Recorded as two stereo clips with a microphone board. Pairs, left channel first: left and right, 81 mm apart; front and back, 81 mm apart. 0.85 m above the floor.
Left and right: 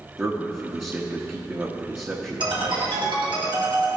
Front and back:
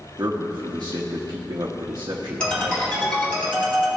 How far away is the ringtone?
About 3.5 m.